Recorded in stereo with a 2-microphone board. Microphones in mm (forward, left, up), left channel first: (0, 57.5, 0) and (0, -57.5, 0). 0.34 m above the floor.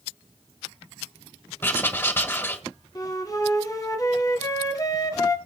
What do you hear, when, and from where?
1.6 s writing: 20° left (ahead or behind), 1.6 m
3.0 s a flute: 30° left (ahead or behind), 1.6 m